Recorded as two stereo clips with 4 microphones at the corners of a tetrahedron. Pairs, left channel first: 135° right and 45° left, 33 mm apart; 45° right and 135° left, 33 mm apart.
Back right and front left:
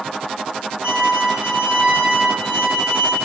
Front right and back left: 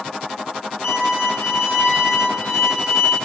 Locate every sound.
0.8 s a violin: straight ahead, 1.2 m